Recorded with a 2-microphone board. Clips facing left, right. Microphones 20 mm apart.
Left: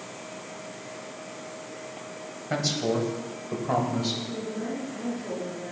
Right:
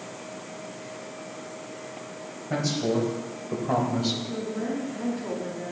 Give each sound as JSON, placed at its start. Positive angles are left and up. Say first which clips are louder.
{"t": 2.5, "sound": "a man speaking", "louder": "even", "side_deg": 40, "distance_m": 1.7}
{"t": 4.3, "sound": "a woman speaking", "louder": "right 2 dB", "side_deg": -55, "distance_m": 2.5}